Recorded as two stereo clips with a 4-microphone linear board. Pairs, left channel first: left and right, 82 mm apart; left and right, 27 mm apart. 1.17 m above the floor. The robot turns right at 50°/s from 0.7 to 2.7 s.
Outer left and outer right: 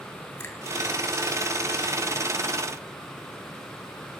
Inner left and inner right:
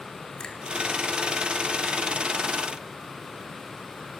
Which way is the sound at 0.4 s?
30° left (ahead or behind).